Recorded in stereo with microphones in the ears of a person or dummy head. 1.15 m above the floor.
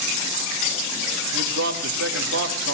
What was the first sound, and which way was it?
A man speaking, 60° right (ahead or behind).